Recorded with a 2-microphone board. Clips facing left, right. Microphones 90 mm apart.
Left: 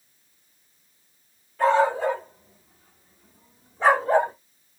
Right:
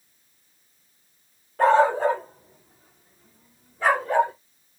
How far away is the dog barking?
About 1.2 m.